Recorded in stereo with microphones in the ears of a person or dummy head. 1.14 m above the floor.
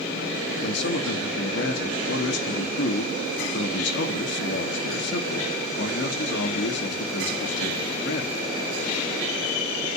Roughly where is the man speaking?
Left.